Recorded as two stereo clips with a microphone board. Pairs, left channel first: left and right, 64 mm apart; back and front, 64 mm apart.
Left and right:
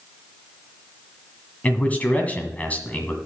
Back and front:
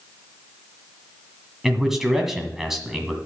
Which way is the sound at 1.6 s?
80° left.